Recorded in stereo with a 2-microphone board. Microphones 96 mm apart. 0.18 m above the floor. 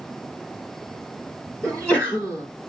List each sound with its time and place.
1.6 s a sneeze: 15° left (ahead or behind), 1.4 m